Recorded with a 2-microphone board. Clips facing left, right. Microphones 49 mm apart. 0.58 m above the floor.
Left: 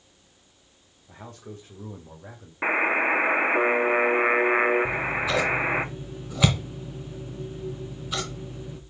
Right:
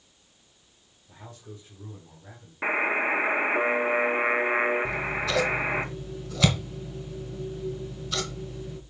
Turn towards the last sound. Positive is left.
turn(degrees=15)  # may be behind; listen again after turning